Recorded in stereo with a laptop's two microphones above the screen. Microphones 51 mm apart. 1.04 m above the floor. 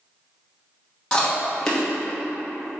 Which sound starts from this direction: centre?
Chewing, at 1.1 s.